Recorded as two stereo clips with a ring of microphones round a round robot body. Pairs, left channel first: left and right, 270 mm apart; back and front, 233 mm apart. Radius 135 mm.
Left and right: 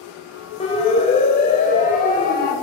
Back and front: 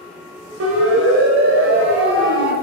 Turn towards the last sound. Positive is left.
turn(degrees=35)